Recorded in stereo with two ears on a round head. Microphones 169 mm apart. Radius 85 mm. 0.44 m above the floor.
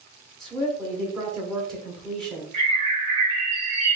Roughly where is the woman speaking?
Centre.